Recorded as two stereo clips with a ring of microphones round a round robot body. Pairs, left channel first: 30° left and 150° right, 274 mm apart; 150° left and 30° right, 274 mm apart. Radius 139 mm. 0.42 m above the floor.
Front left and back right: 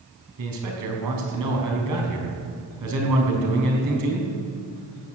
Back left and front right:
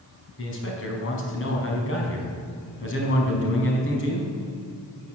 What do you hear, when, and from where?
0.4 s a man speaking: 165° right, 4.5 m